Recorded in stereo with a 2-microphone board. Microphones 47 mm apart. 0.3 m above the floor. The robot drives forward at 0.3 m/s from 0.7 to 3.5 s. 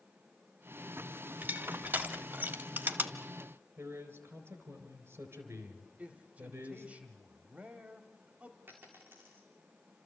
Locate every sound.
1.4 s crushing: 45° right (ahead or behind), 1.3 m
3.8 s a man speaking: 65° right (ahead or behind), 4 m
6.0 s a man speaking: 35° right (ahead or behind), 1.1 m
8.7 s a dropped coin: 50° right (ahead or behind), 4 m